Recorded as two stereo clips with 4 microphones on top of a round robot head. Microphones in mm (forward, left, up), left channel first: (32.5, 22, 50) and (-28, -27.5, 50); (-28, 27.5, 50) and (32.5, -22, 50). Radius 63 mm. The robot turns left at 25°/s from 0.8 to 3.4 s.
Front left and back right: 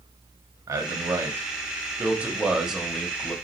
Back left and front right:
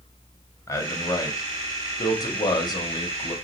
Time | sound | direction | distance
0.7 | a man speaking | 175° right | 1.1 m